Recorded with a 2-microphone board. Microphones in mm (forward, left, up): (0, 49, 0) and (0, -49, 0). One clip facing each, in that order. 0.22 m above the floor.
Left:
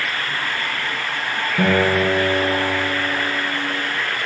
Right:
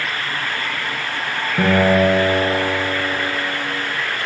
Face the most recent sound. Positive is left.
turn(degrees=-35)  # may be behind; listen again after turning